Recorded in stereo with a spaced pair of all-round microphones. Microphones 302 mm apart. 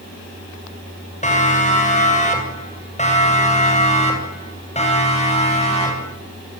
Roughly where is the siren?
Left.